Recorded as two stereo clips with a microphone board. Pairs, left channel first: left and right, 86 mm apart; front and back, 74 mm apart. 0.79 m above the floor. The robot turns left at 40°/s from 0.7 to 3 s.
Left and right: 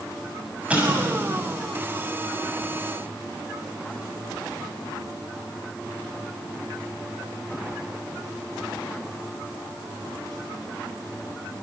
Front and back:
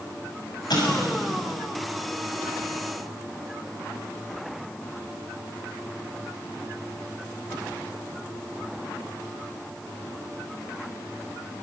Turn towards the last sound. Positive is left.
turn(degrees=-105)